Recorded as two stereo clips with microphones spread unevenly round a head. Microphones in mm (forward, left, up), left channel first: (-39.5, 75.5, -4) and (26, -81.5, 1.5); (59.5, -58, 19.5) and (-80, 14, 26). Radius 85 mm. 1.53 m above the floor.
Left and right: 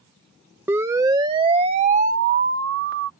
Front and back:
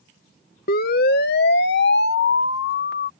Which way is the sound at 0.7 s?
10° left.